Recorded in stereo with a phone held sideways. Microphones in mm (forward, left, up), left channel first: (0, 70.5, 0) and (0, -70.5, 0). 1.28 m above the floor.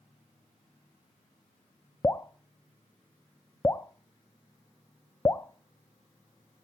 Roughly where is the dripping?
Centre.